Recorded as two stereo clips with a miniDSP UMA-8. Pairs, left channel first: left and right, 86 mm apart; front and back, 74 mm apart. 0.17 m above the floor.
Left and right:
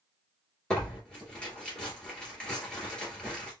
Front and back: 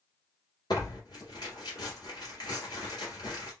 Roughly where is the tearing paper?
Ahead.